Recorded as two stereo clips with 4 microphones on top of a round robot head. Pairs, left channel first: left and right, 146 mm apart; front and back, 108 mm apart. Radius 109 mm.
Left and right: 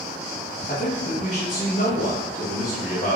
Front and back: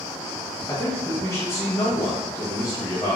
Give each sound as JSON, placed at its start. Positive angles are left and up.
{"t": 0.7, "sound": "a man speaking", "azimuth_deg": 60, "distance_m": 0.8}